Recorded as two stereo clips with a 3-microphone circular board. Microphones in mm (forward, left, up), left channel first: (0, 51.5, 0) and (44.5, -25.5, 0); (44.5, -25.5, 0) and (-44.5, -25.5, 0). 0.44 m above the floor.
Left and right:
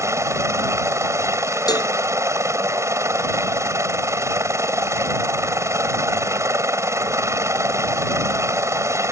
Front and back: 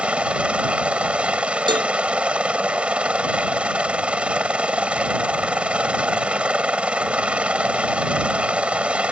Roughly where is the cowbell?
Behind.